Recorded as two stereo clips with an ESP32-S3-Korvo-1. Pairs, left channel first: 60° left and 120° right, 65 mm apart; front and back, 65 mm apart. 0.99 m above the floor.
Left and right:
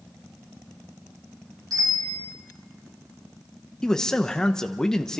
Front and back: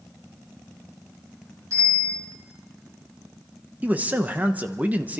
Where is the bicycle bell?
135° right, 8.5 m.